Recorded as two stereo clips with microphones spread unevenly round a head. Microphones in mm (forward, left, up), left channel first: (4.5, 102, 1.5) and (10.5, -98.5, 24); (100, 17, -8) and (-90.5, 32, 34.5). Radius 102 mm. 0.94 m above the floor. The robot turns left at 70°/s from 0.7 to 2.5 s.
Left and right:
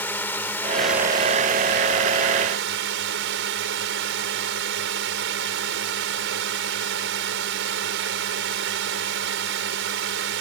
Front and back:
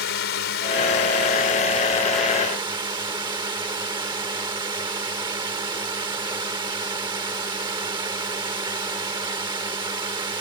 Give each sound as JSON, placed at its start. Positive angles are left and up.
{"t": 0.0, "sound": "a drone", "azimuth_deg": 15}